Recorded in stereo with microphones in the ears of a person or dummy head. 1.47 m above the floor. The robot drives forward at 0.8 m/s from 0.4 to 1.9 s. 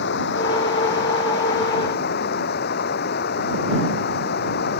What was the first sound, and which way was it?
Running water, 60° left (ahead or behind).